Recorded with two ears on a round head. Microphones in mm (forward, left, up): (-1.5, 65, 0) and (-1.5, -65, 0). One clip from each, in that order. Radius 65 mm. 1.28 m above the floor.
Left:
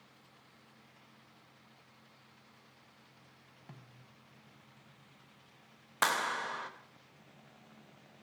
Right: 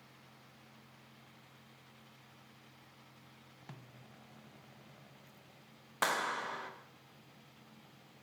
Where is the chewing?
I don't hear chewing.